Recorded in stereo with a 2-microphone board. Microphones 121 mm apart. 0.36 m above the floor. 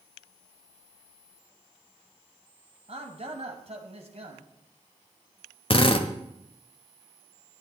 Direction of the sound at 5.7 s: 45° left (ahead or behind).